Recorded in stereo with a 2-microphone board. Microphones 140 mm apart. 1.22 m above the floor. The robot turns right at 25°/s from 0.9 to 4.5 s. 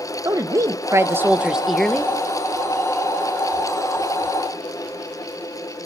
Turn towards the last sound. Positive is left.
turn(degrees=70)